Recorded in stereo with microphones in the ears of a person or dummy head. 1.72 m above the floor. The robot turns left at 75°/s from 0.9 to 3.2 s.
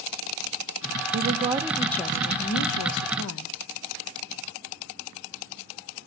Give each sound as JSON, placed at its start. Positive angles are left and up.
{"t": 1.1, "sound": "a woman speaking", "azimuth_deg": -125, "distance_m": 0.7}